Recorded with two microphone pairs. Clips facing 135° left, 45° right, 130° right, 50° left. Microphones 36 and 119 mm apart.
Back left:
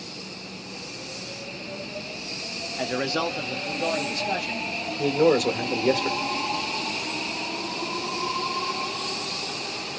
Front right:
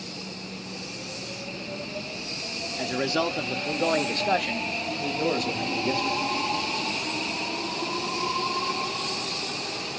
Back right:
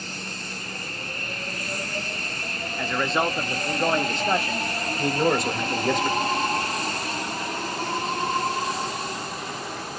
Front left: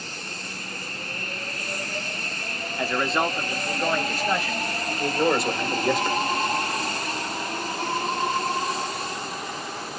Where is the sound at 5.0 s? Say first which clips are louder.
Back left 9 dB, even; 135° left, 1.7 m.